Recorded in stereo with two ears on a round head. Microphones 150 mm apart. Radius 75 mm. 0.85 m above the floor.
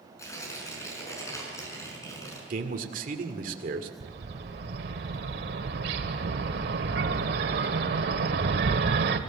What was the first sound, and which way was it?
Tearing paper, 20° left (ahead or behind).